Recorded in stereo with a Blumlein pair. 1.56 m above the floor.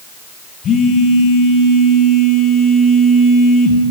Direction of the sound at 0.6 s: 30° left.